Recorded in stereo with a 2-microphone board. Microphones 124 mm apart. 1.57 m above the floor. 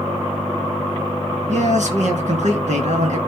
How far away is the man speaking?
About 2.0 m.